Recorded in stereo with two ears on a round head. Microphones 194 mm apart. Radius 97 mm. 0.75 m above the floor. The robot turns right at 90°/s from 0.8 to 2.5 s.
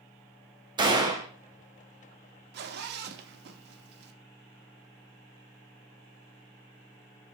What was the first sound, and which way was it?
A gunshot, 20° right (ahead or behind).